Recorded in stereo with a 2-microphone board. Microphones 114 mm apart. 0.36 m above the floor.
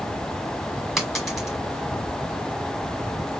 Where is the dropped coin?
Centre (ahead or behind), 1.4 m.